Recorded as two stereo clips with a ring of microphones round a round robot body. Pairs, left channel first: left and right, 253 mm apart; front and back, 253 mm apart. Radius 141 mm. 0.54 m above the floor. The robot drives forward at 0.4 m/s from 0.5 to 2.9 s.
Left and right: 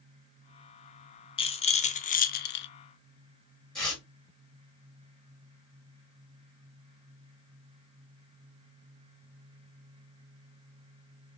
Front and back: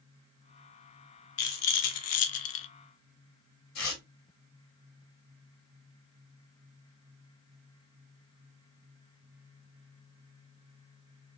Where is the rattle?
20° left, 0.9 m; by 2.7 s 45° left, 0.5 m.